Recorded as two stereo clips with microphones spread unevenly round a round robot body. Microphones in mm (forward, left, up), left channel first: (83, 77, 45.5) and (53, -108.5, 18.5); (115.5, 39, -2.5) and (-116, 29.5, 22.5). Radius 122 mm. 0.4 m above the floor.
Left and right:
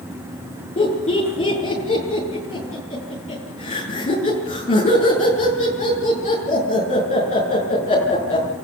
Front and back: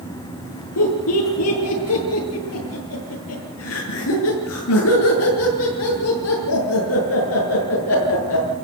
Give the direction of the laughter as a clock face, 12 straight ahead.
11 o'clock.